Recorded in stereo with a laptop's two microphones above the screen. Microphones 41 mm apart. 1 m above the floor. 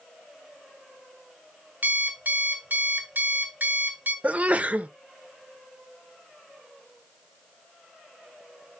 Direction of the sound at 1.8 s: 50° right (ahead or behind).